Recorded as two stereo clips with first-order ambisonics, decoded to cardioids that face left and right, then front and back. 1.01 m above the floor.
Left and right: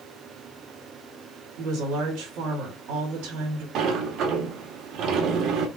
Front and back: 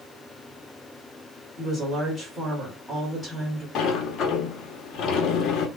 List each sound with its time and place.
1.6 s a woman speaking: 90° right, 2.5 m
3.8 s a sliding door: 45° right, 0.8 m